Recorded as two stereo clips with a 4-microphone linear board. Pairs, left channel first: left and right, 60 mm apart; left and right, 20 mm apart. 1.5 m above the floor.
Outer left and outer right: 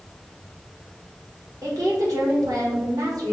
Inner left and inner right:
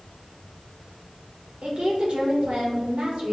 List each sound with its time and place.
1.6 s a woman speaking: 85° right, 1.9 m